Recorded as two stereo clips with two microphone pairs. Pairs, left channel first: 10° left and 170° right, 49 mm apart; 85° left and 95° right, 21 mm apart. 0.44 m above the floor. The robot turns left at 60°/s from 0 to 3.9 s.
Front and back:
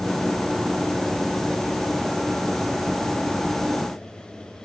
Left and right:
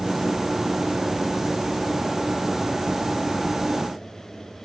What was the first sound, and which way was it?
Only background noise.